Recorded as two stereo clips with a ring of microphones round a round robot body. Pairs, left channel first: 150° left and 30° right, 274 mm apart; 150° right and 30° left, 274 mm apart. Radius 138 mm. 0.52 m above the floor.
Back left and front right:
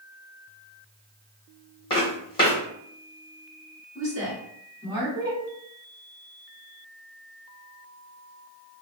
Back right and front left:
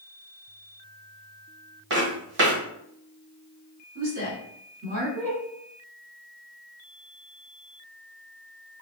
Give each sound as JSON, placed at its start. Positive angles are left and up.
{"t": 1.9, "sound": "footsteps", "azimuth_deg": 80, "distance_m": 1.6}
{"t": 4.0, "sound": "a woman speaking", "azimuth_deg": 40, "distance_m": 1.8}